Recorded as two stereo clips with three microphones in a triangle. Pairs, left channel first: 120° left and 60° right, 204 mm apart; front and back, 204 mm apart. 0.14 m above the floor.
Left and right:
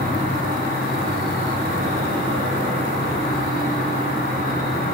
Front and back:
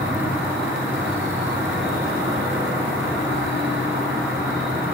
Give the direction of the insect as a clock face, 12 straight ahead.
3 o'clock.